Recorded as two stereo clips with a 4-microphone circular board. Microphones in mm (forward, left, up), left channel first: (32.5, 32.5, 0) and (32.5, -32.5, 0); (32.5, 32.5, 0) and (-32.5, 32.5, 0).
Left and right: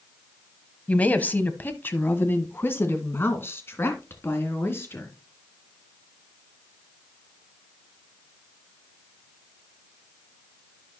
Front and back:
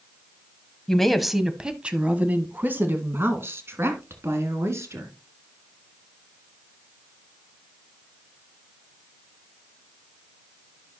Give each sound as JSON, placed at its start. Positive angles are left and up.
{"t": 0.9, "sound": "a woman speaking", "azimuth_deg": 70, "distance_m": 1.0}